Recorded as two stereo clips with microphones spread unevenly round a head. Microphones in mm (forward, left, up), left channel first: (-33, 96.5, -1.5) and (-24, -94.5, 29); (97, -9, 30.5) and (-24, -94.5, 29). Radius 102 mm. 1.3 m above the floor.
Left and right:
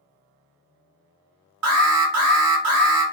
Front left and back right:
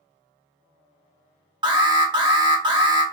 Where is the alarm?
85° right, 1.5 m.